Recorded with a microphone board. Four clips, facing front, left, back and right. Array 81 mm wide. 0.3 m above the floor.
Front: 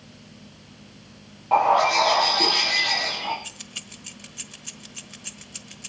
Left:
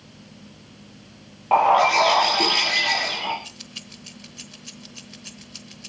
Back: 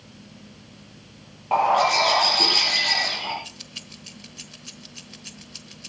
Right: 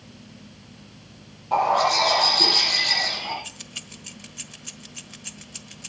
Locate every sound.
1.5 s a bird: 100° left, 5.5 m
3.4 s keys jangling: 35° right, 0.9 m